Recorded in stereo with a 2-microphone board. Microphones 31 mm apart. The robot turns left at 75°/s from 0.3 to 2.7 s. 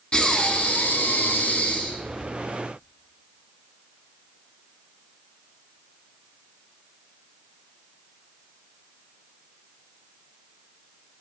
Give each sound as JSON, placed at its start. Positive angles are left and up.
{"t": 0.1, "sound": "breathing", "azimuth_deg": 155, "distance_m": 0.6}